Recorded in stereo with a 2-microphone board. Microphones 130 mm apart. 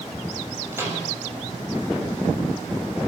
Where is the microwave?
20° right (ahead or behind), 7 m.